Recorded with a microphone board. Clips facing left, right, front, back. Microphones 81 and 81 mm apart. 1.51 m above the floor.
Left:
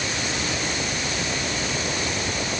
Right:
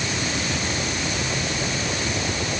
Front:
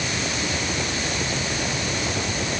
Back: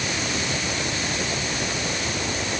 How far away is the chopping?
No chopping in this recording.